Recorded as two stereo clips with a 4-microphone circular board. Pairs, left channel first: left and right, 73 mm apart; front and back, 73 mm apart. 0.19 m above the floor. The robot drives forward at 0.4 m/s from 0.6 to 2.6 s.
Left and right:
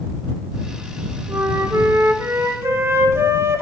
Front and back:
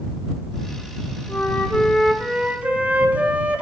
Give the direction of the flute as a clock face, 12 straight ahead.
2 o'clock.